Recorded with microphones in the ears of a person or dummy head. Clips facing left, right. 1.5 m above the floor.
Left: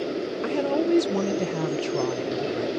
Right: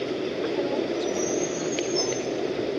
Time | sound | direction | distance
0.4 | a woman speaking | 75° left (ahead or behind) | ?